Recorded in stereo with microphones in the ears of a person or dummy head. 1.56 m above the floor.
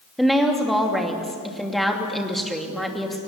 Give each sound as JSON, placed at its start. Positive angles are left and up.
{"t": 0.2, "sound": "a woman speaking", "side_deg": 0, "distance_m": 2.5}